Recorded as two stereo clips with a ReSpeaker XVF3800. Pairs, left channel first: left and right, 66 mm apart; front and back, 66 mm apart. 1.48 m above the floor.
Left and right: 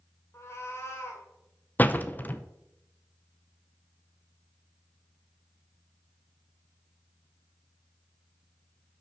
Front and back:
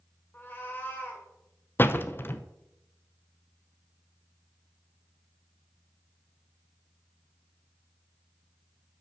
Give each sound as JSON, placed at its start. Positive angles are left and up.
{"t": 0.3, "sound": "a cat meowing", "azimuth_deg": 55, "distance_m": 2.0}
{"t": 1.8, "sound": "a door slam", "azimuth_deg": 40, "distance_m": 0.6}